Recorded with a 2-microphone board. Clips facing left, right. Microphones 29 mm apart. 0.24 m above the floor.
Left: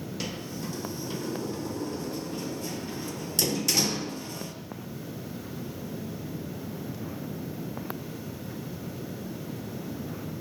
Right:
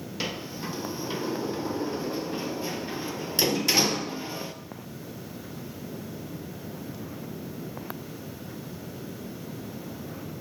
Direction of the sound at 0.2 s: 25° right (ahead or behind).